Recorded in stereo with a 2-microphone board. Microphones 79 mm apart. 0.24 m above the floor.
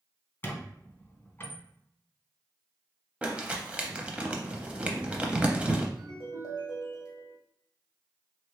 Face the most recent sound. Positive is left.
turn(degrees=60)  # may be behind; listen again after turning